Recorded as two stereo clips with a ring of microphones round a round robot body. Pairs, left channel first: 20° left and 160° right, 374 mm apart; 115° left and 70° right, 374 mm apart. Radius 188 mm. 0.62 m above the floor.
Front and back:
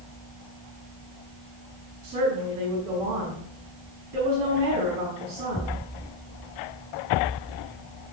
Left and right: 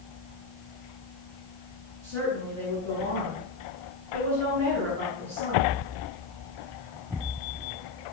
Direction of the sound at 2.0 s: 125° right.